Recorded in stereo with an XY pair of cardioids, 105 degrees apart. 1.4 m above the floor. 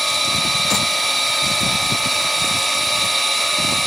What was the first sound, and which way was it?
A machine running, 5° right.